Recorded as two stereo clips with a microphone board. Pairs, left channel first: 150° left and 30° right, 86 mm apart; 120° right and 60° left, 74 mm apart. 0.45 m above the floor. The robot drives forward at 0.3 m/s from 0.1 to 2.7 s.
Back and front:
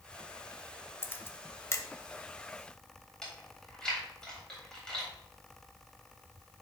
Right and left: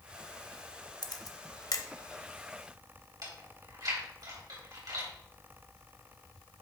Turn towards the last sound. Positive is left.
turn(degrees=70)